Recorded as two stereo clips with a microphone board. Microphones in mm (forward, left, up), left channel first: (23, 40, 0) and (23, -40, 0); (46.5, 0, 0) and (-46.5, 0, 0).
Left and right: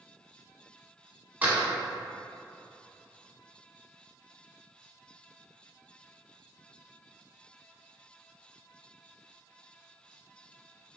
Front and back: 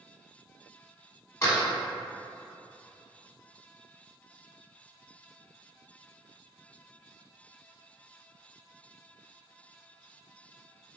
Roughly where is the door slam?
Ahead right.